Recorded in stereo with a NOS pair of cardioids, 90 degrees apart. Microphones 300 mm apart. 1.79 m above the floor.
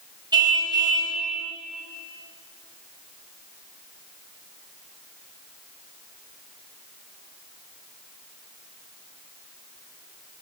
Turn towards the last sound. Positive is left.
turn(degrees=-15)